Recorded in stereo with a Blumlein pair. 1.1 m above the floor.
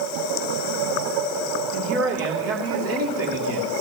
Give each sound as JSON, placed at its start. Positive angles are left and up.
{"t": 1.7, "sound": "a man speaking", "azimuth_deg": -45, "distance_m": 3.0}